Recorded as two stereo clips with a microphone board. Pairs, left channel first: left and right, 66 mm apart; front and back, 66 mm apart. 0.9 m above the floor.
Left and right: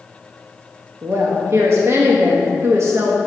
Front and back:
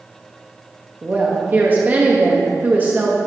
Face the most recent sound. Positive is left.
turn(degrees=-125)